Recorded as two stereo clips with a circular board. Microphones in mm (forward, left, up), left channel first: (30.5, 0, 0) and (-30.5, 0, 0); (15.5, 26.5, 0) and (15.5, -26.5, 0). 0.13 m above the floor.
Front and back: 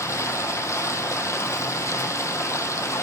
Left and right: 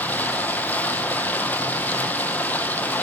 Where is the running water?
35° left, 0.9 m.